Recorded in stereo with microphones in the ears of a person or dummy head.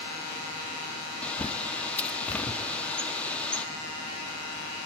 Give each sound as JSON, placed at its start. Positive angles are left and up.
{"t": 1.2, "sound": "a bird", "side_deg": 15, "distance_m": 0.5}